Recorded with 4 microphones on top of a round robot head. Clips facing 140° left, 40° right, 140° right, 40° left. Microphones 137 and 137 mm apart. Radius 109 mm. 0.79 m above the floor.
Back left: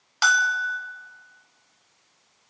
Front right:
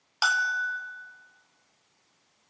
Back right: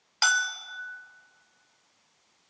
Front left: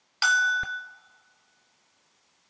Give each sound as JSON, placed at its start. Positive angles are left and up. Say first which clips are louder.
{"t": 0.2, "sound": "a bell", "louder": "back left 5 dB, front left 3 dB", "azimuth_deg": -120, "distance_m": 1.4}